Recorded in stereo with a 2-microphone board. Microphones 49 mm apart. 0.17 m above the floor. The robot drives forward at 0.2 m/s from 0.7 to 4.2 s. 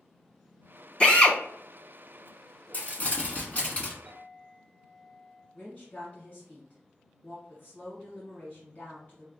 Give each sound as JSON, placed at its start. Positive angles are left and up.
{"t": 1.0, "sound": "a drill", "side_deg": 20, "distance_m": 0.8}
{"t": 2.7, "sound": "crumpling", "side_deg": 35, "distance_m": 1.1}
{"t": 4.0, "sound": "a clink", "side_deg": 0, "distance_m": 1.1}
{"t": 5.5, "sound": "a woman speaking", "side_deg": 40, "distance_m": 1.2}